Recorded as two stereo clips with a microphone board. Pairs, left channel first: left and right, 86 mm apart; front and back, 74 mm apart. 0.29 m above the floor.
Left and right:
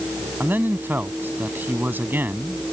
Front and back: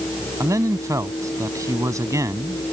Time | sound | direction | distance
0.4 | a man speaking | 155° right | ?